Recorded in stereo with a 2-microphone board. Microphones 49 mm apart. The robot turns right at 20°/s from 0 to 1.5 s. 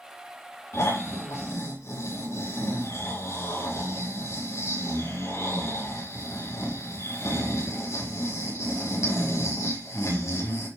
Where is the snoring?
80° left, 9 m; by 10.7 s 85° left, 9 m.